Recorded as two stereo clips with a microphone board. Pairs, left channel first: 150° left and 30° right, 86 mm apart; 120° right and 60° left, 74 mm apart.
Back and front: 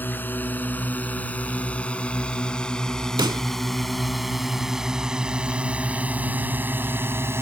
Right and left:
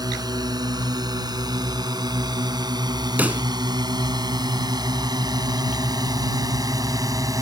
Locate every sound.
0.0 s a drone: 85° left; by 7.4 s 30° left
3.2 s a pop: 5° right